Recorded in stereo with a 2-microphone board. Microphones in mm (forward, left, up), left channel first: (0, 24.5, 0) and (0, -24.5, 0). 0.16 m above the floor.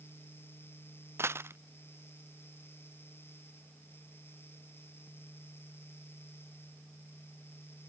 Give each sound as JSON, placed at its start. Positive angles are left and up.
{"t": 1.2, "sound": "a dropped coin", "side_deg": -60}